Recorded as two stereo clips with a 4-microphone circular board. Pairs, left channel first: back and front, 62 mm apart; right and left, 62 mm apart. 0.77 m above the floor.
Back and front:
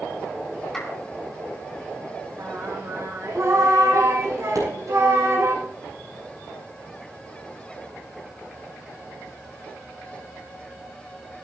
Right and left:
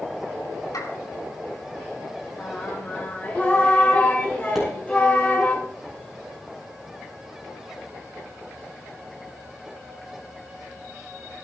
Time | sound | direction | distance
0.7 | a clap | 100° right | 6 m
2.4 | singing | 25° right | 3.5 m
4.5 | a pop | 5° left | 7.5 m